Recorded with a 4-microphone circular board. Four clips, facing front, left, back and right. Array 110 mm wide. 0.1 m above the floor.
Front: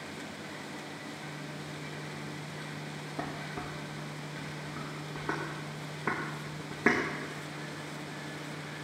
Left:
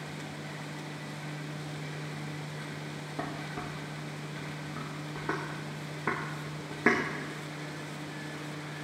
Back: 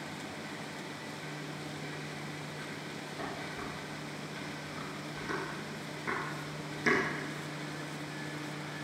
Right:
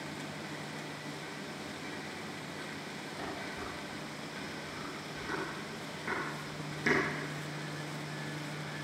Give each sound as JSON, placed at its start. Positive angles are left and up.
{"t": 3.2, "sound": "dishes clattering", "azimuth_deg": 50, "distance_m": 3.0}